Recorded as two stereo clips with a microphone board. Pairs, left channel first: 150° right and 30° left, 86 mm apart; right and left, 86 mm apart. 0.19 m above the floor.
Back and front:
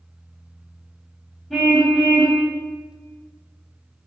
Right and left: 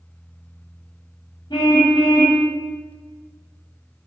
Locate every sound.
1.5 s a car horn: 60° right, 9 m